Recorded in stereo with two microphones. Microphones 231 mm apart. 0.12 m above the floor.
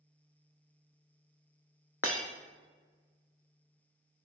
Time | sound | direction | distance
2.0 | breaking glass | 70° left (ahead or behind) | 0.6 m